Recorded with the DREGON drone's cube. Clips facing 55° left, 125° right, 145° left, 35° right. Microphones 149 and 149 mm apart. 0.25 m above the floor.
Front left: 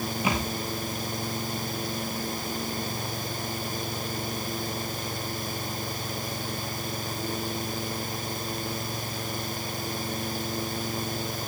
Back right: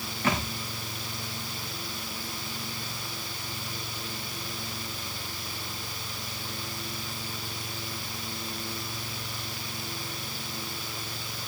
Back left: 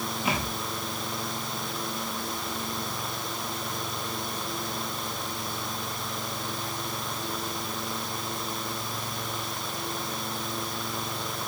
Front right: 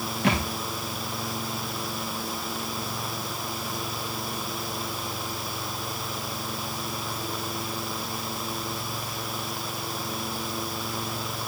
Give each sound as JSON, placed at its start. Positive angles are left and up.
{"t": 0.2, "sound": "a thud", "azimuth_deg": -20, "distance_m": 6.5}